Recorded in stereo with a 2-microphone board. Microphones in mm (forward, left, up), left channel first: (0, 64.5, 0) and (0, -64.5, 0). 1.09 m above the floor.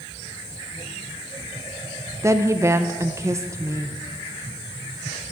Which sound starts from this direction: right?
A woman speaking, at 2.2 s.